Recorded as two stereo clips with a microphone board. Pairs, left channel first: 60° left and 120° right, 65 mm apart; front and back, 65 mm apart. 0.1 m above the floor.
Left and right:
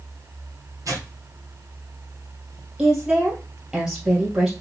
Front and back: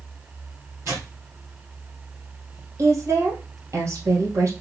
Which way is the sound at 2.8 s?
165° left.